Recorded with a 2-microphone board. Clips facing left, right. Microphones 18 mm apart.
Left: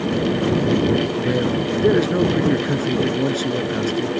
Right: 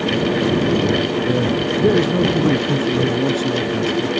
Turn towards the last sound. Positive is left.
turn(degrees=30)  # may be behind; listen again after turning